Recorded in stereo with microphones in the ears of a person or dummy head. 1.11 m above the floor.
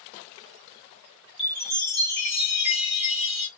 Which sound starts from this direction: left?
A chime, at 1.4 s.